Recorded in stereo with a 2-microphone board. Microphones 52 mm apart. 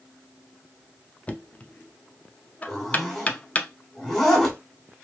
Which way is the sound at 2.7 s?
10° left (ahead or behind).